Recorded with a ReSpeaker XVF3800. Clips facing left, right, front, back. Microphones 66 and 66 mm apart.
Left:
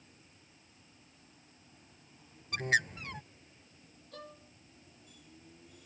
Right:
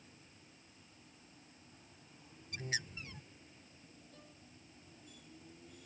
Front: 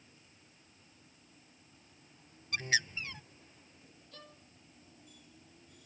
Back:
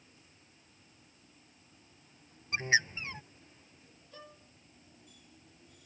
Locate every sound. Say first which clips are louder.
2.5 s a bird: left 12 dB, back 4 dB; 115° left
4.1 s a violin: left 9 dB, back 4 dB; 100° left